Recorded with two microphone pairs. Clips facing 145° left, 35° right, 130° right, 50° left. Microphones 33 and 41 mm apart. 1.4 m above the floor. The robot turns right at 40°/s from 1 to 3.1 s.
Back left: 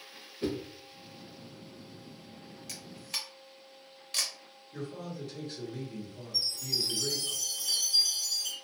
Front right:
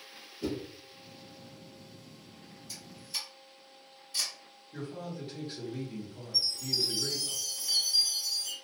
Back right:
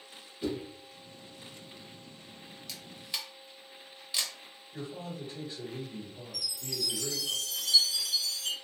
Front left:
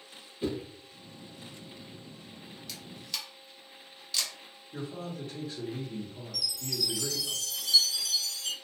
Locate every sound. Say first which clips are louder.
0.4 s a whoosh: back left 2 dB, front left 1 dB; 105° left, 0.6 m
2.7 s a camera shutter: back left 2 dB, even; 140° left, 0.7 m; by 4.3 s 155° left, 0.7 m
4.7 s a man speaking: even, front left 2 dB; 35° left, 1.1 m
6.3 s a chime: front right 1 dB, front left 3 dB; 155° left, 0.8 m